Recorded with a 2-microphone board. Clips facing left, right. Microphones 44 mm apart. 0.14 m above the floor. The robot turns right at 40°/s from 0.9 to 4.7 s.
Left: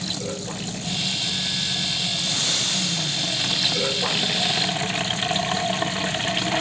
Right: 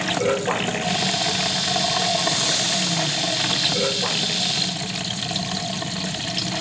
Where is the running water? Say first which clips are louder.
Right 9 dB; 125° right; by 6.6 s 25° left.